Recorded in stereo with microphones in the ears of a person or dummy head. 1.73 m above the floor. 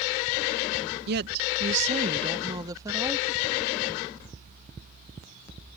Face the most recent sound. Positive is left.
turn(degrees=-10)  # may be behind; listen again after turning